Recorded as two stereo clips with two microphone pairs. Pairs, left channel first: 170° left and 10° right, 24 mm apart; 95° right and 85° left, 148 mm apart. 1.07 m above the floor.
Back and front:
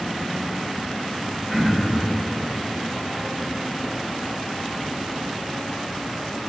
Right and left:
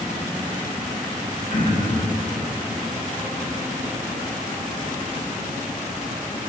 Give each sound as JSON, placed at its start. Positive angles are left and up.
{"t": 1.5, "sound": "throat clearing", "azimuth_deg": -105, "distance_m": 1.5}